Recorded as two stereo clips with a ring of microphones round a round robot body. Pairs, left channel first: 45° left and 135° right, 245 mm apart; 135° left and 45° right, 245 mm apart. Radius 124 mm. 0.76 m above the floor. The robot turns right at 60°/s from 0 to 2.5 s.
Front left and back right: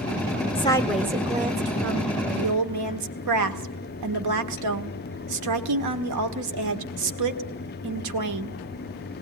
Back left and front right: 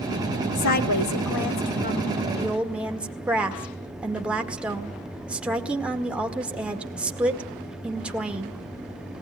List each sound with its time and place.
0.6 s a woman speaking: 110° left, 1.8 m; by 8.6 s 130° right, 1.8 m